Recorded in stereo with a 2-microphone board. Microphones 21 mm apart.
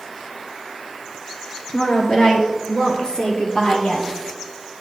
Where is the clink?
I don't hear a clink.